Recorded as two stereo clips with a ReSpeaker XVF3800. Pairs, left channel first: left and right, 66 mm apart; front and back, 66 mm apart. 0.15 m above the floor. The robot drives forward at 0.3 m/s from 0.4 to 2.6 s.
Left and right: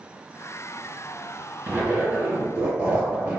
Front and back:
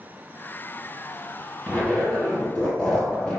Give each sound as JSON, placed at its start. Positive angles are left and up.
{"t": 1.7, "sound": "a zipper", "azimuth_deg": -55, "distance_m": 1.9}